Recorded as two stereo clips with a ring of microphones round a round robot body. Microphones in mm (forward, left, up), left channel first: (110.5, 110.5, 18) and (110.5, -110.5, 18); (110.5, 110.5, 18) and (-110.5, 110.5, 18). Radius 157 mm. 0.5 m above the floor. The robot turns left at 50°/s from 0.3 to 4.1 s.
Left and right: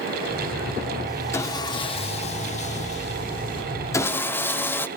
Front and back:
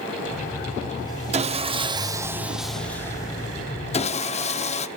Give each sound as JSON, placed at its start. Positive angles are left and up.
{"t": 1.3, "sound": "sawing", "azimuth_deg": 155, "distance_m": 0.6}